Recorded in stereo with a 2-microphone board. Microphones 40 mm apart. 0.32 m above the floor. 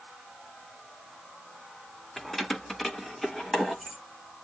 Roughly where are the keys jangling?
Centre.